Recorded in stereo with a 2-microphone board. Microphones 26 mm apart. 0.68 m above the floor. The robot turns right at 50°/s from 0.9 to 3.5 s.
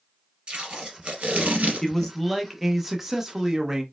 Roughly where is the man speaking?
Centre.